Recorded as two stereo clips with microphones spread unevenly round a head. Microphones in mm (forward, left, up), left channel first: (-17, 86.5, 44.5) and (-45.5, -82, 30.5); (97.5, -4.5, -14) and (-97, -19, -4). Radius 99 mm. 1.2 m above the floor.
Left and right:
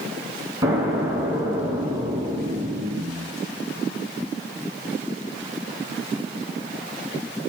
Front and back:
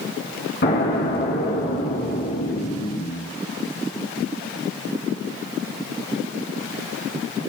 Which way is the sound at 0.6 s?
25° right.